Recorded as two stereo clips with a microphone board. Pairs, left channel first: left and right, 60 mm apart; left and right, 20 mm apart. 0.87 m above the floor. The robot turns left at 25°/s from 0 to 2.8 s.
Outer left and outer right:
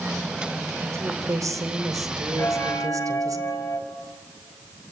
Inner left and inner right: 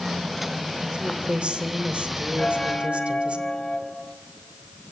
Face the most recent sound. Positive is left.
turn(degrees=55)  # may be behind; listen again after turning